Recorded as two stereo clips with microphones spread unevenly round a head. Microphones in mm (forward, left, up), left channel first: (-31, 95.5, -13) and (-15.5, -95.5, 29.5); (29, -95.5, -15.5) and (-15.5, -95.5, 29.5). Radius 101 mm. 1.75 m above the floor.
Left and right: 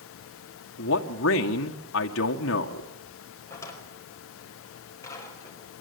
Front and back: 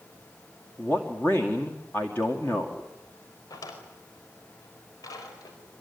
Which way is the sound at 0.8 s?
70° left.